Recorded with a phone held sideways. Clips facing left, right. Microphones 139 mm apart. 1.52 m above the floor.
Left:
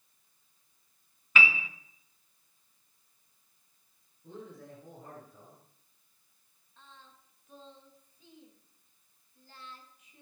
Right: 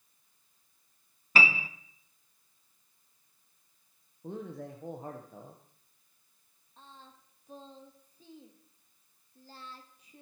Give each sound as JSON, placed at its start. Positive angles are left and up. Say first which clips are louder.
{"t": 1.4, "sound": "a piano", "louder": "right 1 dB", "side_deg": -40, "distance_m": 0.7}
{"t": 4.2, "sound": "a man speaking", "louder": "right 6 dB", "side_deg": -85, "distance_m": 1.1}
{"t": 6.8, "sound": "singing", "louder": "right 3 dB", "side_deg": -40, "distance_m": 1.4}